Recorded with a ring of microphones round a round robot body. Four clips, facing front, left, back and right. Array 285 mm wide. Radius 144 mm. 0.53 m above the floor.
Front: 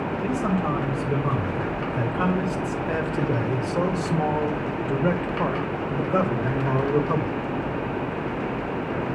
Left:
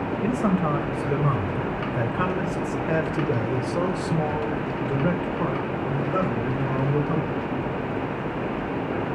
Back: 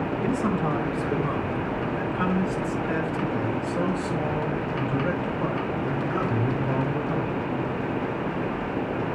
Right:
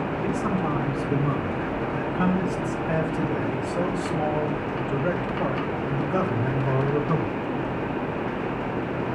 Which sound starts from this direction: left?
A man speaking, at 0.2 s.